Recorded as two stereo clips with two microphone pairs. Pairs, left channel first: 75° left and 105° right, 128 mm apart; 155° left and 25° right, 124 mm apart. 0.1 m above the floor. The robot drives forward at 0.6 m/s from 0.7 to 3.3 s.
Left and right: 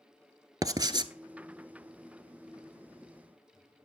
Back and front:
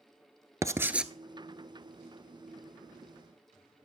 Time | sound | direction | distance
0.6 | writing | 70° right | 0.6 m